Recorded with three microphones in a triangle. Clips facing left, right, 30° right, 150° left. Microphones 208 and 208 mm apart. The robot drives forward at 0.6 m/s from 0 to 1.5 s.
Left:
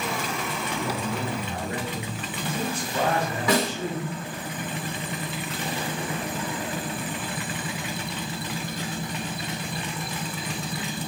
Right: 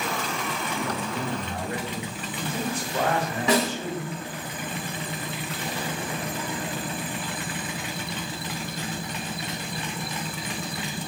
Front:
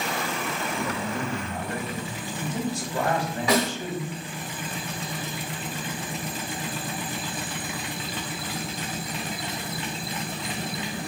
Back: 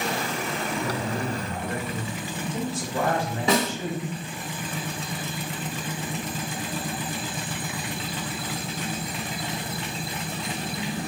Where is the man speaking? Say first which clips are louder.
Left 2 dB, back 1 dB; 160° left, 1.4 m; by 4.2 s 170° left, 1.7 m.